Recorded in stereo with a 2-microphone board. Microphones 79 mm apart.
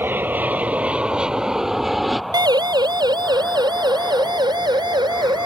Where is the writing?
No writing in this recording.